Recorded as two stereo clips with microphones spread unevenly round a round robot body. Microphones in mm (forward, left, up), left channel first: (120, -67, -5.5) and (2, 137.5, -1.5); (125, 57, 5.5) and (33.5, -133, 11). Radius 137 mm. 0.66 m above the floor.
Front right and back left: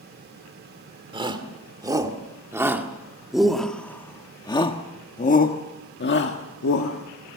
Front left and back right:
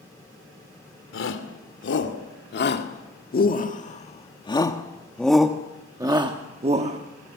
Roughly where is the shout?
Ahead left.